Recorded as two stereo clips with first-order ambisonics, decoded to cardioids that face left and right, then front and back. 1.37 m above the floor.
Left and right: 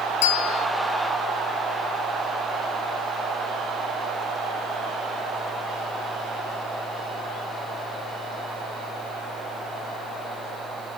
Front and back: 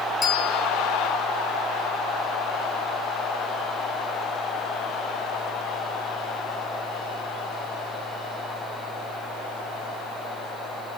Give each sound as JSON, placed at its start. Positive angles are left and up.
{"t": 0.2, "sound": "a bell", "azimuth_deg": 75, "distance_m": 1.7}